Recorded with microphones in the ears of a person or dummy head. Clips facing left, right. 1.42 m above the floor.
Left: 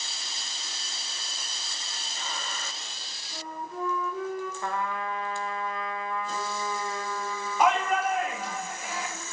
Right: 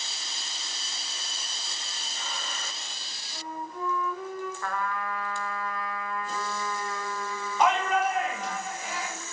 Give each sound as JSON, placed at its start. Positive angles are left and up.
{"t": 3.3, "sound": "a flute", "side_deg": 70, "distance_m": 5.5}
{"t": 4.6, "sound": "a trumpet", "side_deg": 20, "distance_m": 0.9}
{"t": 7.6, "sound": "a shout", "side_deg": 5, "distance_m": 2.5}